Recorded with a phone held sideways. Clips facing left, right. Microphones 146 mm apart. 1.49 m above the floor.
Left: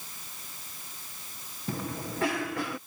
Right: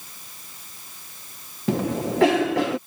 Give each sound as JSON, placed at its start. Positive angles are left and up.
{"t": 1.7, "sound": "a cough", "side_deg": -85}